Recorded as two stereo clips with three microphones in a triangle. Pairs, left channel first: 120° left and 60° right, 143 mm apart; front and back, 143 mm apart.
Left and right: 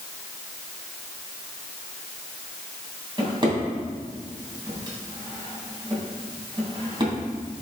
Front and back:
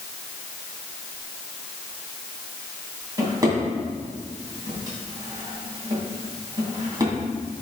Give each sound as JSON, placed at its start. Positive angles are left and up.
{"t": 3.2, "sound": "a drawer", "azimuth_deg": -115, "distance_m": 2.5}